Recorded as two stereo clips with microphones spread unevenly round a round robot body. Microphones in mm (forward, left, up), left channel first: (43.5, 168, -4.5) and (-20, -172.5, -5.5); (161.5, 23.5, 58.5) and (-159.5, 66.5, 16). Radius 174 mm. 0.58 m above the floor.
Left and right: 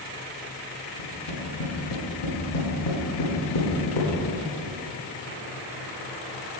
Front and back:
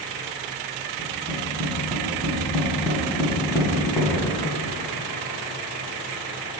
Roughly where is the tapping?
Left.